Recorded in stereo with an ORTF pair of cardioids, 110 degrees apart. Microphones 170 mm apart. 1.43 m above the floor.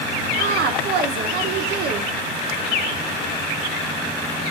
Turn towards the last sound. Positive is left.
turn(degrees=-65)